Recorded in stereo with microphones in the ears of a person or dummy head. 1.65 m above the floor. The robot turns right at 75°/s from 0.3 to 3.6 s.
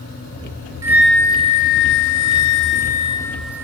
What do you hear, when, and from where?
0.8 s a flute: 15° right, 0.9 m; by 3.6 s 165° right, 0.9 m